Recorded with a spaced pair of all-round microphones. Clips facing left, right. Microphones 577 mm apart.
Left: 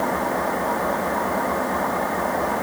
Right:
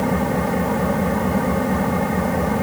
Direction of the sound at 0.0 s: 55° right (ahead or behind).